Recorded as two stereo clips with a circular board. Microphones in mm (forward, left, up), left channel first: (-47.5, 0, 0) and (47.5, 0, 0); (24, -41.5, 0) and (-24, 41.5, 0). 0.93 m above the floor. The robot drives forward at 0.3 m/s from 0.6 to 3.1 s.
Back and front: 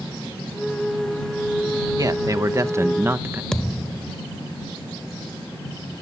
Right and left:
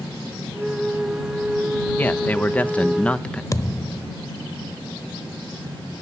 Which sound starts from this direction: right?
A thud, at 3.5 s.